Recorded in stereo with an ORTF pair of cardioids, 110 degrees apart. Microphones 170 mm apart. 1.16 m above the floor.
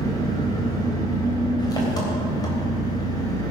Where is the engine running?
25° left, 3.5 m.